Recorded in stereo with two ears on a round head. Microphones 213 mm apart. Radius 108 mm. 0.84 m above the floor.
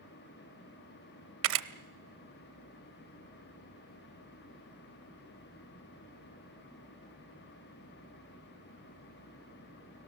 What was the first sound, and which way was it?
A camera shutter, 60° right (ahead or behind).